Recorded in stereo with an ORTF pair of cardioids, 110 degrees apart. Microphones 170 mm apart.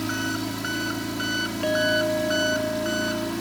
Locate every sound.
0.0 s an engine running: straight ahead
1.6 s a clink: 5° left